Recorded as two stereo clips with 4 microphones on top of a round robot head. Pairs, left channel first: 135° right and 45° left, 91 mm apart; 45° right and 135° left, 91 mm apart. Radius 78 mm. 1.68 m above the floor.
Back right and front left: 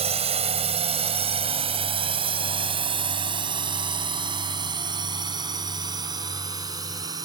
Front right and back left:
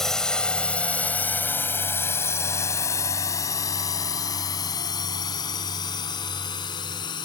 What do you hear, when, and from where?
0.0 s a drone: 40° left; by 7.3 s 5° right